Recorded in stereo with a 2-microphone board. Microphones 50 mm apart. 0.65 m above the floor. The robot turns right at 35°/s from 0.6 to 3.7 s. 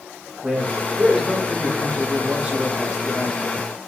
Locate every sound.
0.4 s a man speaking: 15° right (ahead or behind), 0.9 m